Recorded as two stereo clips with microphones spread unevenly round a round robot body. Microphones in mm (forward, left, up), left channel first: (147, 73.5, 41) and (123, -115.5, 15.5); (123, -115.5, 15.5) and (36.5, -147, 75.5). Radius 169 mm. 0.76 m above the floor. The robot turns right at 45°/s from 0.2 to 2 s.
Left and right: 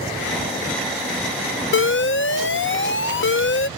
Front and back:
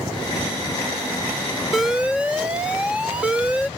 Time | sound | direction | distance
1.7 | an alarm | 85° left | ?